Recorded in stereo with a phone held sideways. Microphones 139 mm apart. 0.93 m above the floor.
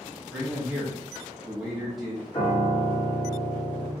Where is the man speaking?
5° right (ahead or behind), 1.0 m.